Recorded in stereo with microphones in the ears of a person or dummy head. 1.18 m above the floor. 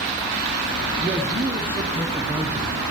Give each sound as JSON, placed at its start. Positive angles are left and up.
{"t": 1.0, "sound": "a man speaking", "side_deg": -10, "distance_m": 0.8}